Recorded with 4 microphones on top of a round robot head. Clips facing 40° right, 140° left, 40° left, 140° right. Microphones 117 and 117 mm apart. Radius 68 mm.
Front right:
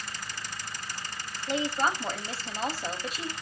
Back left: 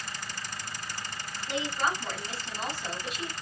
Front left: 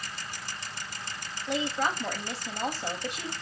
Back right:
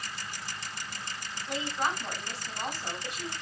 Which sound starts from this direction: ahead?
A woman speaking, at 1.5 s.